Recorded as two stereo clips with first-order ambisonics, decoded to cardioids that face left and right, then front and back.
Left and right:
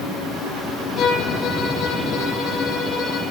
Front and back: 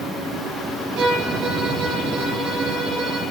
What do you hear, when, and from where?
1.0 s a violin: 175° left, 7.5 m